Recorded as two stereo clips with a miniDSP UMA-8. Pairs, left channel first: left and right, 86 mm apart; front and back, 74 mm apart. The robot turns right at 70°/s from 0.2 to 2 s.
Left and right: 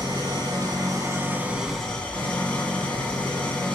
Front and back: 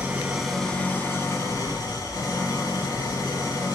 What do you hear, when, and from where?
0.0 s an engine running: 110° right, 1.6 m; by 3.8 s 15° left, 1.6 m